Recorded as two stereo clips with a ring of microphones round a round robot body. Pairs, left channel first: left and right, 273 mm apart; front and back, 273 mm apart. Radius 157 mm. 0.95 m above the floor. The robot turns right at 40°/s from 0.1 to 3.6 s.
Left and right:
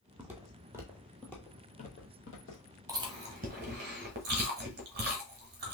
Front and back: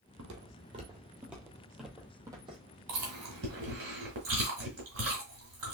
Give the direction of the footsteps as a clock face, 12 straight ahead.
6 o'clock.